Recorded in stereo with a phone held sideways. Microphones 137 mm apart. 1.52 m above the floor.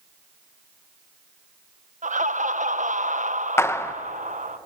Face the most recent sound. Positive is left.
turn(degrees=20)  # may be behind; listen again after turning